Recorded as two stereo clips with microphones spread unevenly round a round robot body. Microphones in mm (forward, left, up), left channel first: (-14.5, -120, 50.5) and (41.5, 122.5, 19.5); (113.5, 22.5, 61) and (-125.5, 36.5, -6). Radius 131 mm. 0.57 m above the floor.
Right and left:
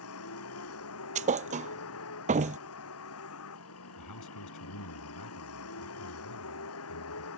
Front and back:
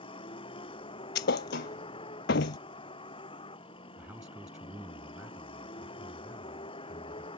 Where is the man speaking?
100° right.